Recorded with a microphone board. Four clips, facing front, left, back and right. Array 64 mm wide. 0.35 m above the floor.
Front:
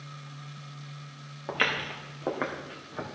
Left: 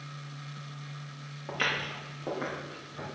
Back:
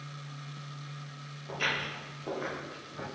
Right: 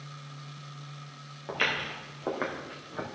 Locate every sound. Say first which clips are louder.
1.5 s footsteps: right 1 dB, front 4 dB; 5° right, 2.5 m; by 3.0 s 45° right, 3 m